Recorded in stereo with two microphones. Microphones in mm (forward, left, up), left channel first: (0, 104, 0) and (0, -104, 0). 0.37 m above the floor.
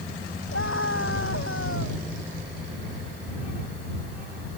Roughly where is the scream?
Left.